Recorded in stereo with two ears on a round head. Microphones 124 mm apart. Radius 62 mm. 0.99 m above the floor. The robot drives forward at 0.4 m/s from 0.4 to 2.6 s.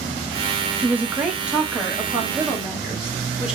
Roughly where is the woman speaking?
Centre.